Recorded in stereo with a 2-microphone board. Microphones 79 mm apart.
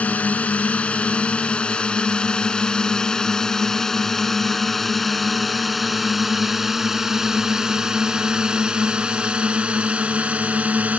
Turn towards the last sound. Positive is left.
turn(degrees=-15)  # may be behind; listen again after turning